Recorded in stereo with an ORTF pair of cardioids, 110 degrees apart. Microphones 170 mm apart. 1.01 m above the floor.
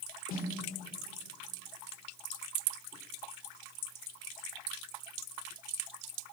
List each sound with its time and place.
0.3 s a snare drum: 55° left, 4 m